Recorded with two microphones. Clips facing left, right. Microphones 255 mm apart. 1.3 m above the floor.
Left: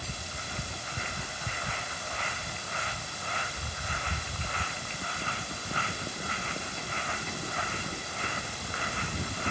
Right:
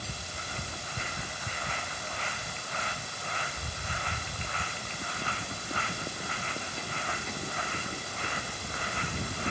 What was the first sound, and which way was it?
Only background noise.